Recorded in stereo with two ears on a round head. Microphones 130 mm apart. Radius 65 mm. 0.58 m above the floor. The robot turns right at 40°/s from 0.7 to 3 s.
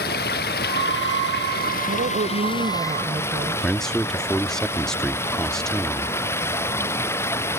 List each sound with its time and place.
0.0 s running water: 70° left; by 7.6 s 165° left
1.9 s a woman speaking: 75° right; by 3.7 s 30° right
3.6 s a man speaking: 5° left (ahead or behind)